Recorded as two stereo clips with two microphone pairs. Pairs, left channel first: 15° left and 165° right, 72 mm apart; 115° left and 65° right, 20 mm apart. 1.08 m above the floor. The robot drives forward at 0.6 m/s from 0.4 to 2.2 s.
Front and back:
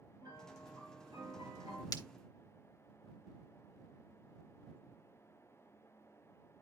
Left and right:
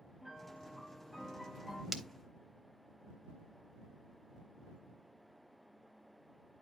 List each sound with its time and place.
0.2 s a piano: 140° right, 7 m; by 1.8 s 145° right, 7.5 m
1.9 s breaking glass: 5° left, 0.9 m